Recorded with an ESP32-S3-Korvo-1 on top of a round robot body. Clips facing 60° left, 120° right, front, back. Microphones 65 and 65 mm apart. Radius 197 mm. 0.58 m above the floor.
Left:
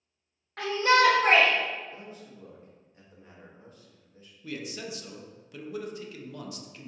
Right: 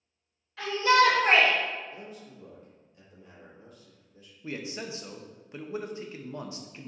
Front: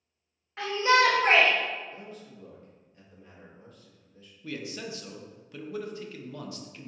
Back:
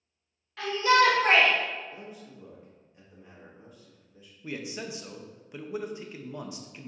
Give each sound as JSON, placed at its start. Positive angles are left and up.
{"t": 0.6, "sound": "a shout", "azimuth_deg": 55, "distance_m": 0.9}
{"t": 1.9, "sound": "a man speaking", "azimuth_deg": 105, "distance_m": 1.3}
{"t": 4.4, "sound": "a man speaking", "azimuth_deg": -130, "distance_m": 0.6}